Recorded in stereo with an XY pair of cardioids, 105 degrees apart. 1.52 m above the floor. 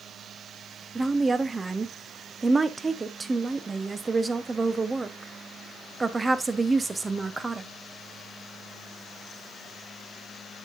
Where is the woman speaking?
20° right, 0.9 m.